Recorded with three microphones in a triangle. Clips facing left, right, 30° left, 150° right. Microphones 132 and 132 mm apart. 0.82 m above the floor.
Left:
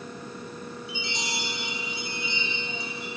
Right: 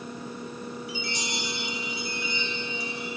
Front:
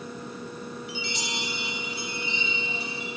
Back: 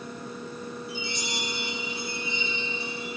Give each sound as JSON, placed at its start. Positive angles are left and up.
{"t": 0.9, "sound": "a chime", "azimuth_deg": 25, "distance_m": 5.5}